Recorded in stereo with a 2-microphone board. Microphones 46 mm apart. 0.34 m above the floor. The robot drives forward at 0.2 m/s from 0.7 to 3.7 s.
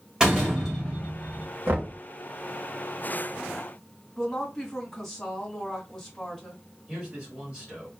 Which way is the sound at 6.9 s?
15° right (ahead or behind).